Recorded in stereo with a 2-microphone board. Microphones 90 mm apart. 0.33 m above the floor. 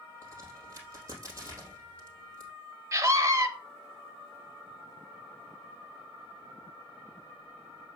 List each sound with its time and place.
0.2 s a crack: 35° right (ahead or behind), 3.5 m
2.9 s a scream: 35° right (ahead or behind), 1.2 m